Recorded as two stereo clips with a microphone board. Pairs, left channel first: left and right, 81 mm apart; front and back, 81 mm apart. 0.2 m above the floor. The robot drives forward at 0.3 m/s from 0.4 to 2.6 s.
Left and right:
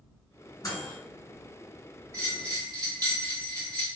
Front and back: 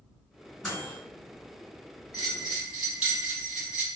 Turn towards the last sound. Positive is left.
turn(degrees=-110)